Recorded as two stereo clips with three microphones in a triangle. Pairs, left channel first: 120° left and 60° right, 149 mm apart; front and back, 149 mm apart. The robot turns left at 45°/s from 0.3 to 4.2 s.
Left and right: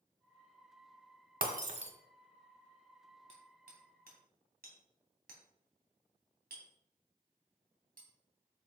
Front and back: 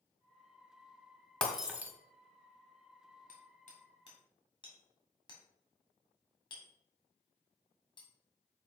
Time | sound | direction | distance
1.4 | breaking glass | 80° right | 1.3 m
3.3 | hammering | 15° right | 2.5 m